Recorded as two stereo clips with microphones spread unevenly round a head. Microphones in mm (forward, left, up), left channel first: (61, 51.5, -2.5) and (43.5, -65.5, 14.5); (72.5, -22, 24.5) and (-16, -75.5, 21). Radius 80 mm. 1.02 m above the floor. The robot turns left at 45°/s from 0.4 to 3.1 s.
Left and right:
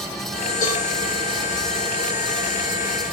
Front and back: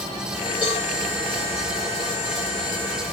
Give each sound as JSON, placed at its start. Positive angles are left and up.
{"t": 0.6, "sound": "a cowbell", "azimuth_deg": 95, "distance_m": 5.5}